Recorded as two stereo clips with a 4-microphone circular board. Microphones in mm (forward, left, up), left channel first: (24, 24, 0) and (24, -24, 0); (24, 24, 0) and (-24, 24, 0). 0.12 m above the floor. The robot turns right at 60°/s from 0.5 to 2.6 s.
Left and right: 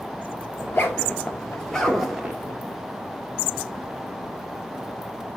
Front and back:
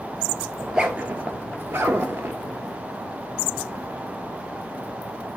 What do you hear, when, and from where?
0.6 s a zipper: 100° left, 1.1 m; by 2.4 s 155° right, 1.1 m